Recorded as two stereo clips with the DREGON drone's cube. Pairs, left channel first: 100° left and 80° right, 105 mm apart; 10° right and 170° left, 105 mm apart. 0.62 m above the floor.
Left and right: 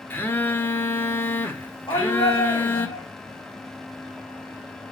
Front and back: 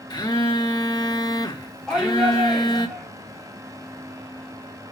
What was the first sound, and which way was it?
A phone buzzing, 30° left.